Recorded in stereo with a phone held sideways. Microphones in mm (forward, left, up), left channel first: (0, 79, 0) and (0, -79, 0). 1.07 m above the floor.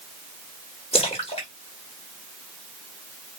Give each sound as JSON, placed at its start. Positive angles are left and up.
{"t": 0.9, "sound": "a splash", "side_deg": 40, "distance_m": 1.4}